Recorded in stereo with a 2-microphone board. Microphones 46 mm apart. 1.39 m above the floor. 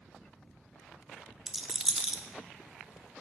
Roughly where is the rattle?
Centre.